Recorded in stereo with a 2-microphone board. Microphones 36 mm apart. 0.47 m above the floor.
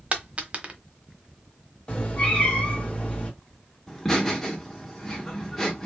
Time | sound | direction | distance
0.1 | a dropped coin | 35° right (ahead or behind) | 1.0 m
1.9 | a cat meowing | 30° left (ahead or behind) | 1.4 m
3.9 | laughter | 10° left (ahead or behind) | 0.9 m